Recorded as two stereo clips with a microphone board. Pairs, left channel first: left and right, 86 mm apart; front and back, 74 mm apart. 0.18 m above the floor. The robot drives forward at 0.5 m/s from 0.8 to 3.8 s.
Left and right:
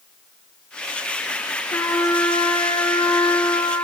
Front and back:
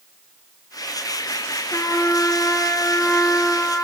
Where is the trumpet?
40° left, 2.5 m; by 3.9 s 65° left, 1.7 m.